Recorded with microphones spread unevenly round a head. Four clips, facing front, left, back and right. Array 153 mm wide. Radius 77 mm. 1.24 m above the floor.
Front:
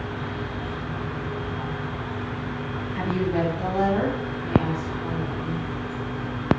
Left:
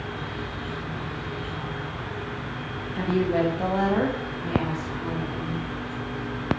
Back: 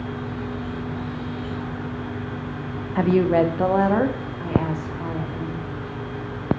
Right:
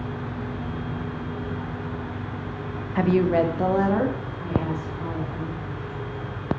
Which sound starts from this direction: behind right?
A woman speaking, at 3.0 s.